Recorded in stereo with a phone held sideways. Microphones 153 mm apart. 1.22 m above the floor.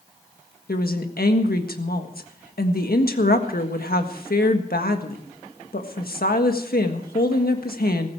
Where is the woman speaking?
80° left, 1.6 m.